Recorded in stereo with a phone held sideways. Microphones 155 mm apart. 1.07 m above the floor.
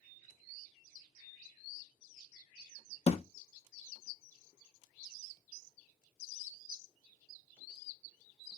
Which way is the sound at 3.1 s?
45° left (ahead or behind).